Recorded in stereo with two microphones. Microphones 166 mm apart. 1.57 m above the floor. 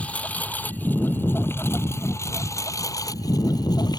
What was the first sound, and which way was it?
A lawn mower, 10° left (ahead or behind).